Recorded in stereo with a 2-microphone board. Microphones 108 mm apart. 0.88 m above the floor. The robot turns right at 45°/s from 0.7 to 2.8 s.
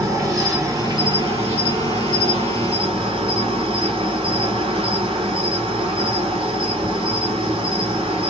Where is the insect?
150° right, 1.7 m; by 8.3 s 55° right, 1.7 m.